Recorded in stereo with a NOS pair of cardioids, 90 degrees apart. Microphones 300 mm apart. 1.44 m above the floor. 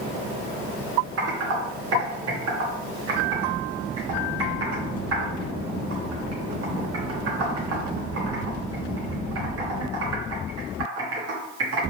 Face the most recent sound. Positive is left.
turn(degrees=-50)